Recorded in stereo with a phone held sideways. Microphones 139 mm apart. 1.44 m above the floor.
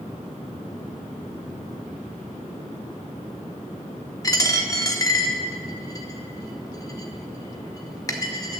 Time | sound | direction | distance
4.2 | a dropped coin | 25° left (ahead or behind) | 1.0 m